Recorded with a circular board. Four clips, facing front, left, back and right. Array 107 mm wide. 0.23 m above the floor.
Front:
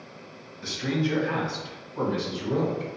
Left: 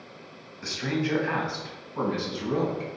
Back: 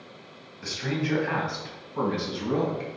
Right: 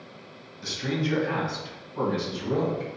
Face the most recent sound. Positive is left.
turn(degrees=155)